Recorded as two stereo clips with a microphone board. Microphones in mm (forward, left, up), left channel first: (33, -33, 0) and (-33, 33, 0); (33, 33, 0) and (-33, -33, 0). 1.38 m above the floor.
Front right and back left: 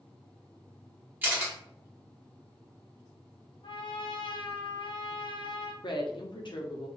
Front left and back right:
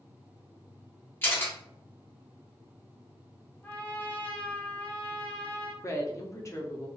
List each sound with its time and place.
1.2 s a camera shutter: 85° left, 1.1 m
3.6 s a trumpet: 25° right, 0.5 m
5.8 s a woman speaking: 15° right, 0.7 m